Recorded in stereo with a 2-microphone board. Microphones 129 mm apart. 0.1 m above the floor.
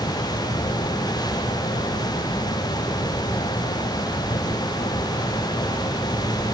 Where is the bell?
I don't hear a bell.